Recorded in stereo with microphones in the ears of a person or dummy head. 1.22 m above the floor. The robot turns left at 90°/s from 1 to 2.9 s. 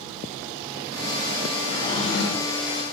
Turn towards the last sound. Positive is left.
turn(degrees=60)